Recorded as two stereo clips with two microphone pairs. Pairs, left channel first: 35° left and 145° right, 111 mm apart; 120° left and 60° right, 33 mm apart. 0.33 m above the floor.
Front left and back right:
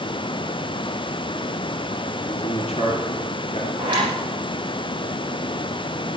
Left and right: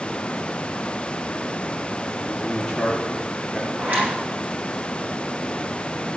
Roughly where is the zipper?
Right.